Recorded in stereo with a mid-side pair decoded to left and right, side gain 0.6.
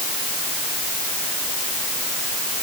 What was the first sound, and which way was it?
Only background noise.